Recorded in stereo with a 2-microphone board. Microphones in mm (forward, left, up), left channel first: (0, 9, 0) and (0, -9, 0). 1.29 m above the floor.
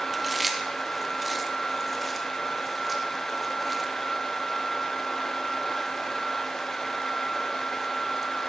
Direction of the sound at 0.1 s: 5° left (ahead or behind).